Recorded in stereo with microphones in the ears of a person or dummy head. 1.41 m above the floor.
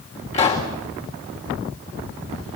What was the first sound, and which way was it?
A pop, 30° left (ahead or behind).